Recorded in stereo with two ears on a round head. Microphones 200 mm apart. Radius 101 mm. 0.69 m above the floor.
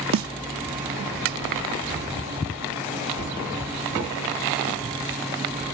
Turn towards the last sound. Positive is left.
turn(degrees=-65)  # may be behind; listen again after turning